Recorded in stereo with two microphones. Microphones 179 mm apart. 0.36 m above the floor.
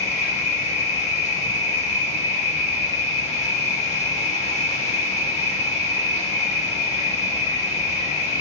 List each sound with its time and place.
0.0 s an insect: 40° left (ahead or behind), 0.7 m